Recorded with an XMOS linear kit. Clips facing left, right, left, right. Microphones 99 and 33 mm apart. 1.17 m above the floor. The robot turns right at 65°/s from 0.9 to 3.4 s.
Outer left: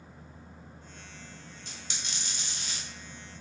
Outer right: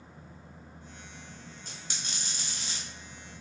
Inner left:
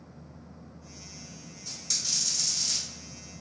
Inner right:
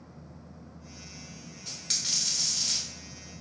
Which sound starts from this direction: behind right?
A dropped coin, at 1.7 s.